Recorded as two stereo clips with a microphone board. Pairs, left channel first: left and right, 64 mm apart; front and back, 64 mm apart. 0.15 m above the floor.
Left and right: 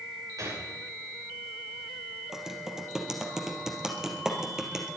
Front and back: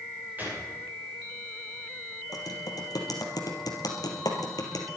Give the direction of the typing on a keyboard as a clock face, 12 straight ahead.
12 o'clock.